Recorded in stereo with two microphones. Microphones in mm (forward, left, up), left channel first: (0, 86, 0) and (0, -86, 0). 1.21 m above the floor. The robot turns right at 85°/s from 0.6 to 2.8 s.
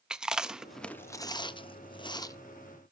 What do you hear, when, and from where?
0.1 s chewing: 5° right (ahead or behind), 0.5 m; by 2.4 s 20° left (ahead or behind), 0.5 m